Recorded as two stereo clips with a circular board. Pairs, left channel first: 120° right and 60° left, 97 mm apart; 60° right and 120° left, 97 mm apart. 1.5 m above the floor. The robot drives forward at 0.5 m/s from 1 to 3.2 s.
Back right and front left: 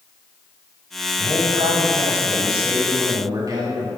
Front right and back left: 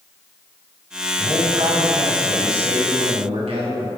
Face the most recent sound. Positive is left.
turn(degrees=110)